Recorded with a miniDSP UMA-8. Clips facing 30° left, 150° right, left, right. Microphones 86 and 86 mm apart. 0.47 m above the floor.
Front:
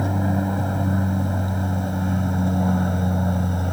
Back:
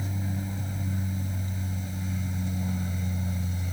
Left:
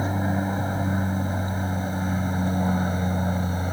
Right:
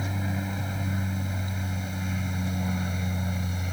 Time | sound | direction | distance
0.0 | an aircraft | 40° left | ?